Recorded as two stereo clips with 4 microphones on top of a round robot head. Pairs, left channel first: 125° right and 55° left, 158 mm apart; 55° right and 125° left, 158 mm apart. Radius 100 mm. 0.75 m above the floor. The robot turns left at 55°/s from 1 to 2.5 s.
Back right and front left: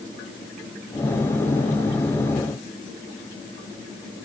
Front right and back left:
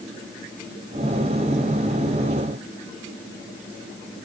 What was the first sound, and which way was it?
Only background noise.